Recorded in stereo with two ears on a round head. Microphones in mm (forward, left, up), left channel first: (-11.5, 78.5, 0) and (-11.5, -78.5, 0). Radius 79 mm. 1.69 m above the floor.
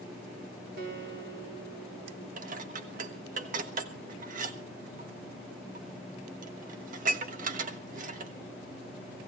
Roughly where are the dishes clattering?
Right.